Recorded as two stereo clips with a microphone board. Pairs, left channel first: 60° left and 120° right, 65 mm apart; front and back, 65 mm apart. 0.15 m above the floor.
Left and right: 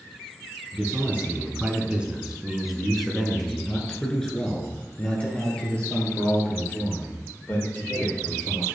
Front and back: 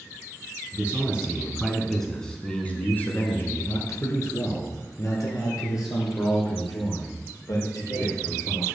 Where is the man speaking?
140° right, 1.2 m; by 8.7 s straight ahead, 3.5 m.